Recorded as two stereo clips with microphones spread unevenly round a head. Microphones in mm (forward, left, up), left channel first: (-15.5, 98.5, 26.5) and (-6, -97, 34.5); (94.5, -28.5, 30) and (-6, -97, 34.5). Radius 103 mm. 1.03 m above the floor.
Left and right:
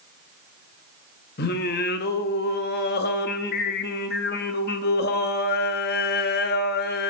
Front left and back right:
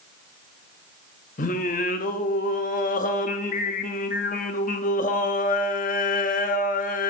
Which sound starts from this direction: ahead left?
Singing, at 1.4 s.